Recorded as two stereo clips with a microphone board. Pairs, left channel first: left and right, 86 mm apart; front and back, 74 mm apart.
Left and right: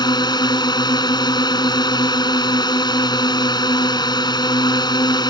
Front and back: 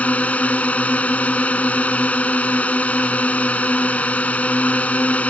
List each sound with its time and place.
0.0 s a drone: 70° left